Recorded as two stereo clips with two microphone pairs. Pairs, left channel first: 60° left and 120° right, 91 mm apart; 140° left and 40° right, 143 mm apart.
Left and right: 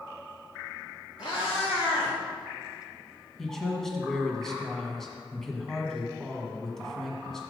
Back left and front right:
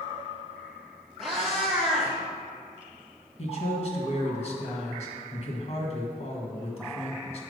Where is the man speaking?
145° left, 1.5 m.